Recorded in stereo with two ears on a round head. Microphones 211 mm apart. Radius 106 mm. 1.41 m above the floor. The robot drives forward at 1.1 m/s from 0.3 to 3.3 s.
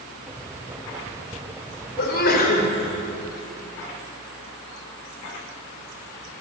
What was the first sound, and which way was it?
A sneeze, 50° left (ahead or behind).